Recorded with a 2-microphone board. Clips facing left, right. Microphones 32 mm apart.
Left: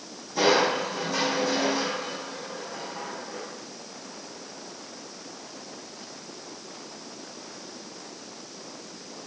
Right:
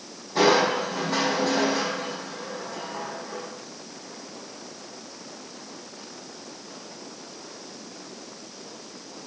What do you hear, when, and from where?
0.3 s crushing: 55° right (ahead or behind), 10 m